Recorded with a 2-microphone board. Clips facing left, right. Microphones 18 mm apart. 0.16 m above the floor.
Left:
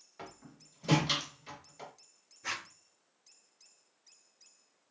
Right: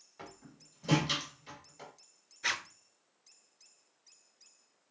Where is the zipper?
60° right (ahead or behind), 1.1 m.